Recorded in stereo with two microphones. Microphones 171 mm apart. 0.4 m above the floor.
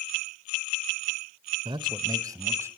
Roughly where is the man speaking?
Right.